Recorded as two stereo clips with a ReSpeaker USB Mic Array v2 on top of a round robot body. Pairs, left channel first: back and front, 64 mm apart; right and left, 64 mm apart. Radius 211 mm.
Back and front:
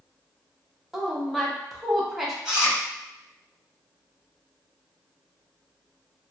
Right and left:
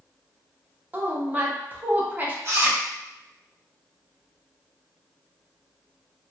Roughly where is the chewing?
Left.